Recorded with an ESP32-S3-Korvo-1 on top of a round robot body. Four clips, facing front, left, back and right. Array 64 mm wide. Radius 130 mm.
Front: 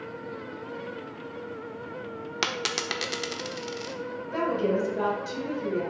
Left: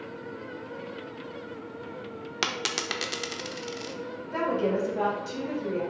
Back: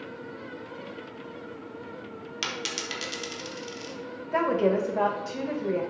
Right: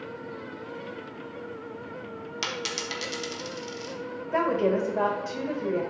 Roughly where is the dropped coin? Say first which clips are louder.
Left 3 dB, front 4 dB; ahead left.